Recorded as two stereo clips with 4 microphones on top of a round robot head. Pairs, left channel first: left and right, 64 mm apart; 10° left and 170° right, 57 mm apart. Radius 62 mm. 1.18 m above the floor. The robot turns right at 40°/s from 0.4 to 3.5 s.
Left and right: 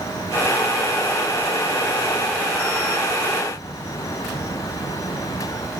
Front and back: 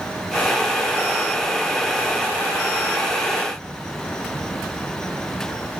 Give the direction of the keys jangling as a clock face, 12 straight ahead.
I don't hear keys jangling.